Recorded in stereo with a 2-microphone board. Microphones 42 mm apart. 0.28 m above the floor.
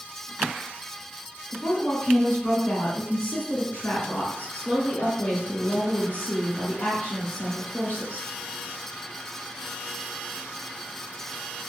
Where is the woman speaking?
55° left (ahead or behind), 2.0 m.